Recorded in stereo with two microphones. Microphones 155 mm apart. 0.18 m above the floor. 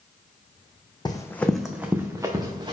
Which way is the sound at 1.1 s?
30° left (ahead or behind).